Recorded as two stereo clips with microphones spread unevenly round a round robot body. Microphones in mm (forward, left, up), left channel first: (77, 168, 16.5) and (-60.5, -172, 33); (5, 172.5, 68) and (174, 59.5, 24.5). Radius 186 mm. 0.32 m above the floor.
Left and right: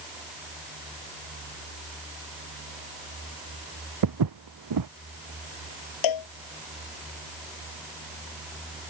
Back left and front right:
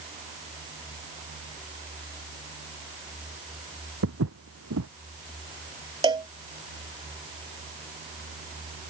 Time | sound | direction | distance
4.0 | footsteps | 75° right | ?
6.0 | a cowbell | 35° left | ?